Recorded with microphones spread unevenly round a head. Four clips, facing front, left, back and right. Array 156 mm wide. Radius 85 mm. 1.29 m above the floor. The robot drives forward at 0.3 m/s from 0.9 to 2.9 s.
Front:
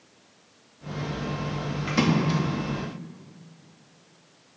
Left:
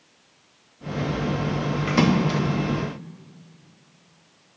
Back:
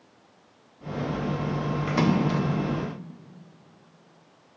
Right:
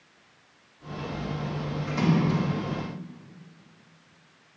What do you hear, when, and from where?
1.9 s a splash: 100° left, 0.9 m; by 2.4 s 110° left, 0.9 m